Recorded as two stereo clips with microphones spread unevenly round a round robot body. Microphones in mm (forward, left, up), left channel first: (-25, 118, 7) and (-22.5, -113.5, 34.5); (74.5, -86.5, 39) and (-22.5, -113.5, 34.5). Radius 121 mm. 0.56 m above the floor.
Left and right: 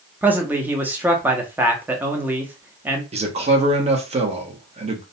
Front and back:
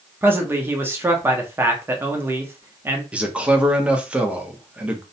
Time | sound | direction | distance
0.2 | a man speaking | straight behind | 0.6 m
3.1 | a man speaking | 115° right | 0.7 m